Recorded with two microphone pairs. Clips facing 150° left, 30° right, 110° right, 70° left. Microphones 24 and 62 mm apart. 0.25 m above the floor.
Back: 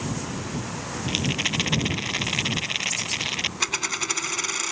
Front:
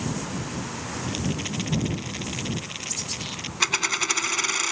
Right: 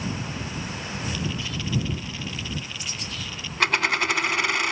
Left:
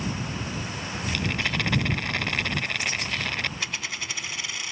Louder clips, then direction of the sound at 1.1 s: Back 6 dB, left 5 dB; 100° left.